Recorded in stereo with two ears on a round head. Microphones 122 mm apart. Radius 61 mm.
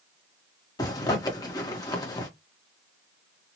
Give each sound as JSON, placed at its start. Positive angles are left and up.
{"t": 0.8, "sound": "a zipper", "side_deg": 30, "distance_m": 1.1}